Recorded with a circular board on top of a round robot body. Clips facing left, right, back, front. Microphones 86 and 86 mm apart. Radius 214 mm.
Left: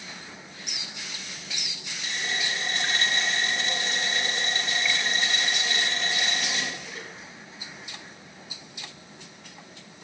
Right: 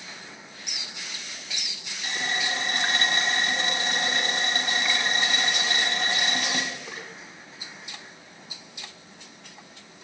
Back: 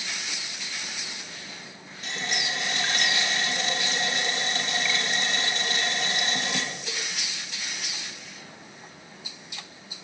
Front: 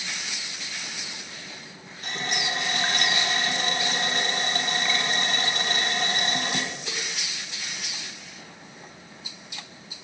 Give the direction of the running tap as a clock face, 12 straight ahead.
2 o'clock.